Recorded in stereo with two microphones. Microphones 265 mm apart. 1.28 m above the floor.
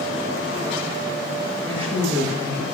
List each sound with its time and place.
1.6 s a woman speaking: 20° right (ahead or behind), 7 m